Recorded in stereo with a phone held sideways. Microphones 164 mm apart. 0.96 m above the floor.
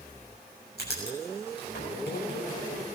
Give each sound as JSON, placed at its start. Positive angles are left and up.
{"t": 0.8, "sound": "writing", "side_deg": 85, "distance_m": 6.5}